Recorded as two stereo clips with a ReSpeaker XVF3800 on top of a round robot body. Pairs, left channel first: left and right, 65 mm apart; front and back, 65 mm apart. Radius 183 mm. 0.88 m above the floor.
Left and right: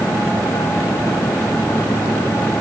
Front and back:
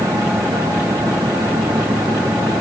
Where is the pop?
No pop in this recording.